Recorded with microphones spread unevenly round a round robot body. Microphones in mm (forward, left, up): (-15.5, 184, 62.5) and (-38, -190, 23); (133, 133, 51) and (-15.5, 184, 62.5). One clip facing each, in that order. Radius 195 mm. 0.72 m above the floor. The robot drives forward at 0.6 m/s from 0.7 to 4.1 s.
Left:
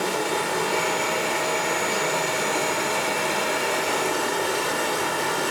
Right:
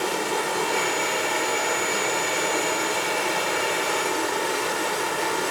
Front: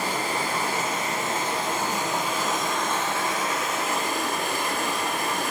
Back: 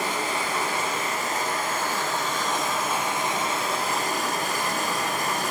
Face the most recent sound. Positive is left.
turn(degrees=125)